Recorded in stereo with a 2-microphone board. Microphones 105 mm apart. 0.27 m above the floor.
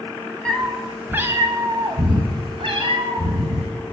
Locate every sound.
0.5 s a cat meowing: 10° left (ahead or behind), 0.7 m; by 3.7 s 70° right (ahead or behind), 1.7 m